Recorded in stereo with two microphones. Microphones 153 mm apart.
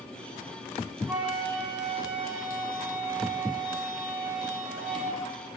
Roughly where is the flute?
Centre.